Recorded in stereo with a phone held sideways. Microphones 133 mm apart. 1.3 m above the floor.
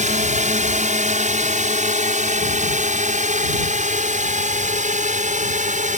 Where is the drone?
75° right (ahead or behind).